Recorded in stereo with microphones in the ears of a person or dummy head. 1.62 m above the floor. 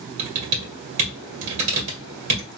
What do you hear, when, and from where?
0.2 s typing on a keyboard: 40° right (ahead or behind), 1.8 m